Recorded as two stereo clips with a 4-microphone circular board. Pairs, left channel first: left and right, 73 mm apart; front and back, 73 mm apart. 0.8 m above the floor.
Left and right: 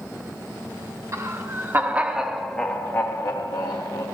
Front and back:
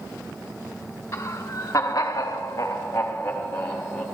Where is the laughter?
50° right, 1.0 m; by 4.0 s 75° left, 1.1 m.